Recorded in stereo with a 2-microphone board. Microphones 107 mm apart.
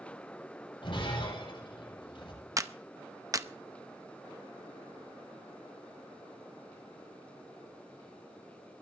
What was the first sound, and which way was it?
Breaking glass, 50° left (ahead or behind).